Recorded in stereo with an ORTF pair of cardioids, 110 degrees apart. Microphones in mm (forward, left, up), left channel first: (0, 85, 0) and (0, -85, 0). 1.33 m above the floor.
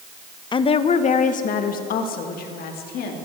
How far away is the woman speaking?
About 0.9 m.